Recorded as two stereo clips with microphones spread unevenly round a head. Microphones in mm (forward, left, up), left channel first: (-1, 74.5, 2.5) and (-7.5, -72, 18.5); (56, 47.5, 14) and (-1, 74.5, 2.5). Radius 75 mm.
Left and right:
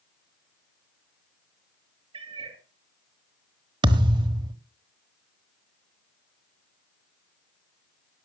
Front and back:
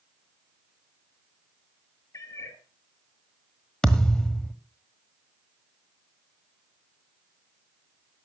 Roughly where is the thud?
Right.